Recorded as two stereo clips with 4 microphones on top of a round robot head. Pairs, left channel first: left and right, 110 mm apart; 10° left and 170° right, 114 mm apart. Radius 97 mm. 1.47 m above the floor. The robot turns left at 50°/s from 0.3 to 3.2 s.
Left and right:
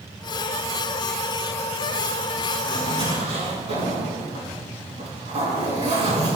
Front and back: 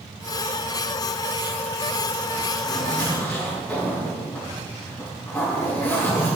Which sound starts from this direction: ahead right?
A zipper, at 2.6 s.